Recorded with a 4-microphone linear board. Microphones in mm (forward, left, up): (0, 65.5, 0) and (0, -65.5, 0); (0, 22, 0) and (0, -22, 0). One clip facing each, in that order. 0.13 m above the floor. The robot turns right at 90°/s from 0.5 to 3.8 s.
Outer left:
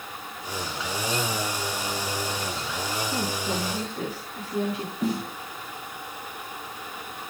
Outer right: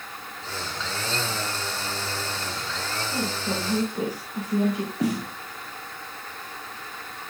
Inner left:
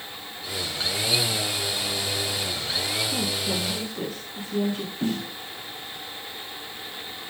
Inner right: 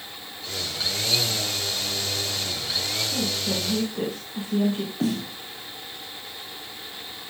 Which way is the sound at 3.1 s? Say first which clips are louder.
Outer right 3 dB, even; 155° left.